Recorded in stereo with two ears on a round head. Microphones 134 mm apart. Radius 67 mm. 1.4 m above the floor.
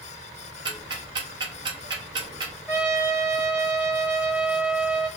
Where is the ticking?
30° right (ahead or behind), 0.5 m.